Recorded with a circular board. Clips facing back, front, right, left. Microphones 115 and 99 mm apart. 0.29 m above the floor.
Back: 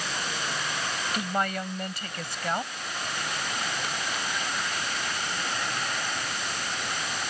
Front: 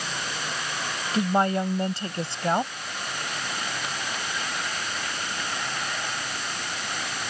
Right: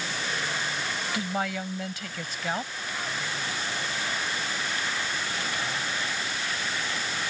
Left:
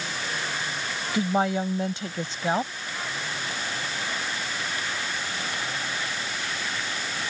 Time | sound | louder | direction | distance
1.1 | a woman speaking | front 8 dB, left 8 dB | 45° left | ?